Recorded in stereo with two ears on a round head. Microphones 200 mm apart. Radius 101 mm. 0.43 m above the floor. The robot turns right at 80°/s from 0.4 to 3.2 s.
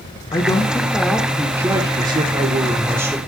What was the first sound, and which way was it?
A man speaking, 20° left (ahead or behind).